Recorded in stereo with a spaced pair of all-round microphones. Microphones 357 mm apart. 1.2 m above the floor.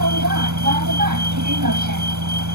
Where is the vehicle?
55° right (ahead or behind).